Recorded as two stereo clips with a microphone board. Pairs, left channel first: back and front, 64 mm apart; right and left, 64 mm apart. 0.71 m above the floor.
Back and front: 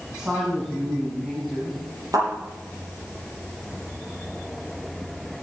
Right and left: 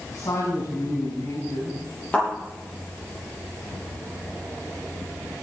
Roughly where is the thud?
Ahead right.